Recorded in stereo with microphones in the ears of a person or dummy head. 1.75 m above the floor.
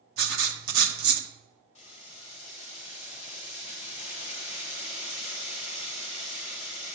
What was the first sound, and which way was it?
Writing, 65° right (ahead or behind).